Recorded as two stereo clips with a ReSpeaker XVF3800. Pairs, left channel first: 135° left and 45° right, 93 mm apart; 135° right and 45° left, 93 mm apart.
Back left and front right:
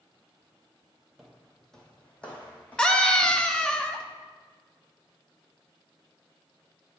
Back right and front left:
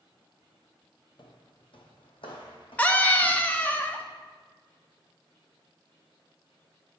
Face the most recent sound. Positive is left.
turn(degrees=-165)